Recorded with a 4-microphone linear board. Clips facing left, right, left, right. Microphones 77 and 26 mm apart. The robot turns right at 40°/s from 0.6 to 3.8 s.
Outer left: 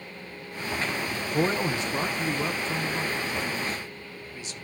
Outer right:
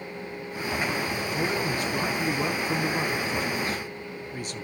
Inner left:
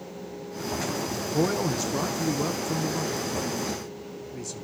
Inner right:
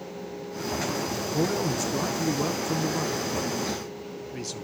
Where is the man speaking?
45° left (ahead or behind), 1.0 m; by 4.7 s 55° right (ahead or behind), 1.0 m.